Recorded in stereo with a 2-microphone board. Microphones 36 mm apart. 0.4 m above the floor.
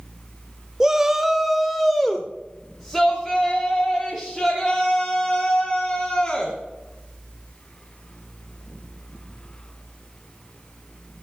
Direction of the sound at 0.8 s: 15° right (ahead or behind).